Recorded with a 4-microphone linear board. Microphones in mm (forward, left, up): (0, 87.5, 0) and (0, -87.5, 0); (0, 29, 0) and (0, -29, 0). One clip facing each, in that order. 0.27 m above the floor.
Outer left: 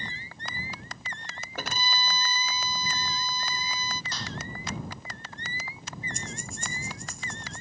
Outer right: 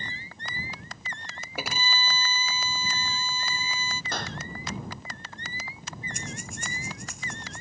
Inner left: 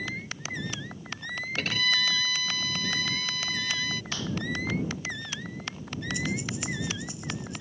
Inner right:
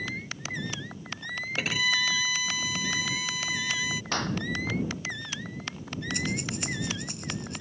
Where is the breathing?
65° right (ahead or behind).